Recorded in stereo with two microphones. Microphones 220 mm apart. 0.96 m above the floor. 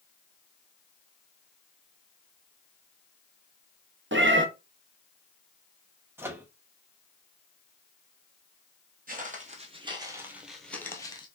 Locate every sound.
4.1 s a cat meowing: 60° right (ahead or behind), 0.6 m
6.2 s a microwave: 10° right (ahead or behind), 0.7 m
9.1 s footsteps: 40° right (ahead or behind), 1.2 m; by 11.3 s 20° left (ahead or behind), 1.0 m